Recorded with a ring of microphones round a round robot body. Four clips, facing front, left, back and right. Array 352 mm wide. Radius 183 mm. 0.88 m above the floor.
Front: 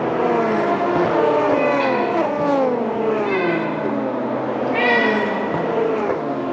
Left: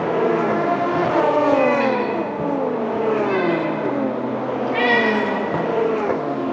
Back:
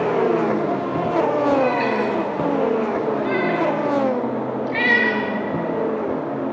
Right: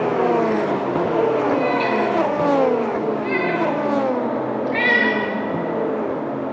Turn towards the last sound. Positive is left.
turn(degrees=-150)